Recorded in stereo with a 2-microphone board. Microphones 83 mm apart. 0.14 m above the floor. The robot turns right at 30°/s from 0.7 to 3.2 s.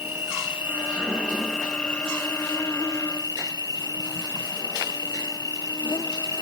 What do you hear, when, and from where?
0.0 s an insect: 25° right; by 6.4 s 50° left